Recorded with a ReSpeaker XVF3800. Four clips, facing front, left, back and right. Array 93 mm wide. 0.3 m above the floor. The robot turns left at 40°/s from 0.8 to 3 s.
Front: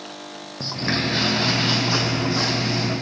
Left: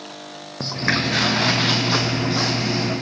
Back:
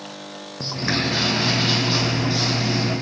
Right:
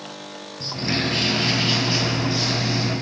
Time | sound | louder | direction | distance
0.6 | footsteps | left 3 dB, back 1 dB | 90° left | 0.6 m